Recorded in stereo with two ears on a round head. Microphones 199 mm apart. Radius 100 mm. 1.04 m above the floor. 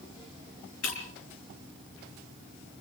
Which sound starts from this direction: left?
Breaking glass, at 0.8 s.